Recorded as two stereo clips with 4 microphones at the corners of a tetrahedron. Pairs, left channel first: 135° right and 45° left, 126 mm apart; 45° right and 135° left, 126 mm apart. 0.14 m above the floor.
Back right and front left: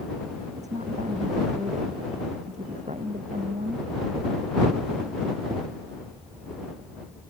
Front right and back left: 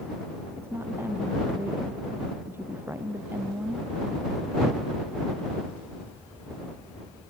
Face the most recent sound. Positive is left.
turn(degrees=65)